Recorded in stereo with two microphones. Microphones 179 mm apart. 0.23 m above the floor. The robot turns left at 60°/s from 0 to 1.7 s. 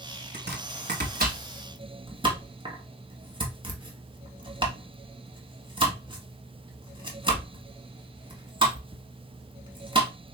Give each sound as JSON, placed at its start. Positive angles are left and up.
{"t": 0.3, "sound": "chopping", "side_deg": -60, "distance_m": 0.9}